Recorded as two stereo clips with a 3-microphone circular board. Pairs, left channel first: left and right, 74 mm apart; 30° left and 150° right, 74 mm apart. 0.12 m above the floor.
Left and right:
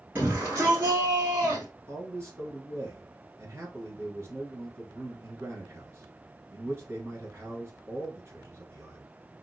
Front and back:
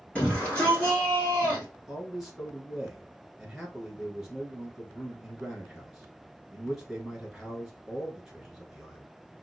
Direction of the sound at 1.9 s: 65° right.